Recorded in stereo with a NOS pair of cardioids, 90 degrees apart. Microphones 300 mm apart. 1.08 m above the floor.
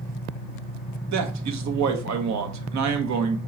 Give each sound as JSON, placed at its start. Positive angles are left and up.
{"t": 1.1, "sound": "a man speaking", "azimuth_deg": -70, "distance_m": 1.0}